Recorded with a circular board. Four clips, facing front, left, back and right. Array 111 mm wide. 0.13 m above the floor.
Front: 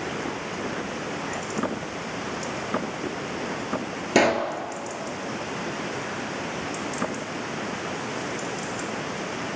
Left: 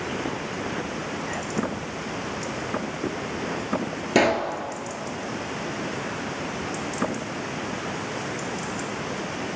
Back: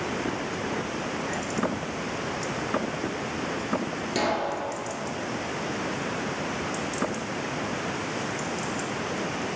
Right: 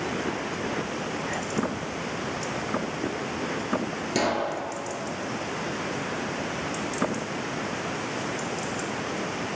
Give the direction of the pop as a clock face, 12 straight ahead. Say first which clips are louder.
Left 5 dB, front 6 dB; 11 o'clock.